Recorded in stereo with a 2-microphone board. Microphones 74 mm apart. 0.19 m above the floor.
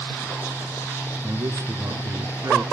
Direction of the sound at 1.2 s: 45° right (ahead or behind).